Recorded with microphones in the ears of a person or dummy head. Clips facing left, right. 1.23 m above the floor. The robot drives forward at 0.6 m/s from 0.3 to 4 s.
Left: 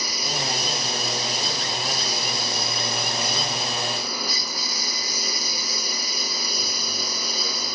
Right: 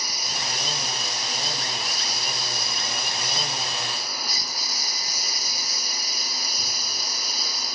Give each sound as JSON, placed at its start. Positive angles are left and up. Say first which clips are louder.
{"t": 0.0, "sound": "a lawn mower", "louder": "left 6 dB", "side_deg": 65}